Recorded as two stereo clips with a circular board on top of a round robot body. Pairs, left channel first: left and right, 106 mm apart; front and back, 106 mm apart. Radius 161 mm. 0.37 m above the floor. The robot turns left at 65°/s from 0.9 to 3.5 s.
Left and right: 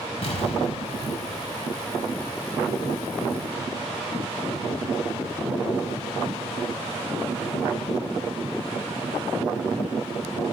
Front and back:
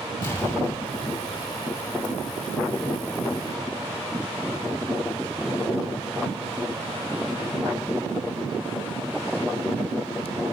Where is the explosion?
70° left, 5.5 m; by 1.5 s 35° left, 5.5 m.